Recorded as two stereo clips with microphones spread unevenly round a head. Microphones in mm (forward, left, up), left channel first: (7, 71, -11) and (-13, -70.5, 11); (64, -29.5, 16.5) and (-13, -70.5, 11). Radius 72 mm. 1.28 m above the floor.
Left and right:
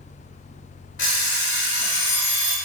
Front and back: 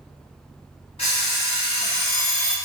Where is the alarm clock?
70° left, 1.2 m.